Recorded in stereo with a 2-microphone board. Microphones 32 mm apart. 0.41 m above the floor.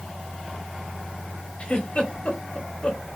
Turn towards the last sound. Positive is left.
turn(degrees=30)  # may be behind; listen again after turning